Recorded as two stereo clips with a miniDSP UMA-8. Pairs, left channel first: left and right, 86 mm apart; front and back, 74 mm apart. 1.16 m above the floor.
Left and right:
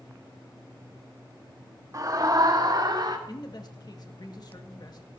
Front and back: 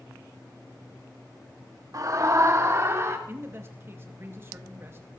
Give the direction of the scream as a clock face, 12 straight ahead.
5 o'clock.